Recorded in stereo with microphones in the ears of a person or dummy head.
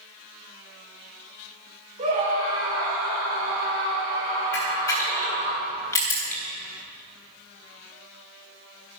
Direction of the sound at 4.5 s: 15° left (ahead or behind).